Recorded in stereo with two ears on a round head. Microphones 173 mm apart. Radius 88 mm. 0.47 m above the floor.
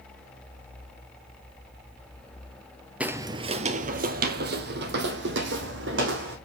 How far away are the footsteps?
About 0.6 m.